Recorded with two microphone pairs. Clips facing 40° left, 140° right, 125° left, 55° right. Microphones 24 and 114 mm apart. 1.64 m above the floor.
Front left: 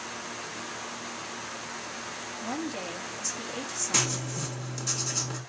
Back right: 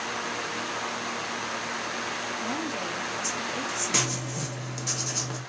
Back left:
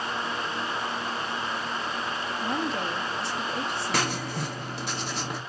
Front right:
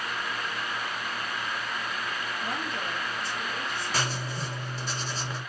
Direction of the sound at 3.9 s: 145° left.